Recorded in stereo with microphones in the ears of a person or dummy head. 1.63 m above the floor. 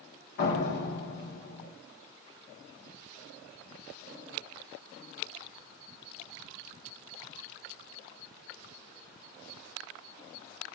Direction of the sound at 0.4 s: 55° left (ahead or behind).